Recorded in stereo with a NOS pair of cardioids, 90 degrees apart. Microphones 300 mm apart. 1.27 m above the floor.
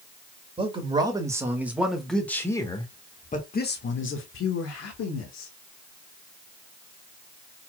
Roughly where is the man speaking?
Ahead.